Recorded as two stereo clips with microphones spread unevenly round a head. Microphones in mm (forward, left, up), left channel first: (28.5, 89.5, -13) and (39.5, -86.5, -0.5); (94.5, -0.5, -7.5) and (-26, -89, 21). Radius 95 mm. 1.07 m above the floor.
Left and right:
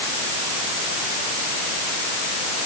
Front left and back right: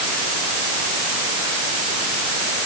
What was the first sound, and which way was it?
Only background noise.